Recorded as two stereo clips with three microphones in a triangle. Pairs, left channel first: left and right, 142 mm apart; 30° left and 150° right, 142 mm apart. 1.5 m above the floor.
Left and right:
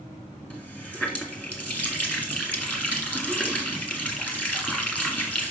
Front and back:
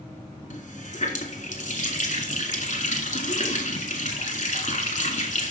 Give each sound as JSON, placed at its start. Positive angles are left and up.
{"t": 0.5, "sound": "a running tap", "azimuth_deg": 10, "distance_m": 1.9}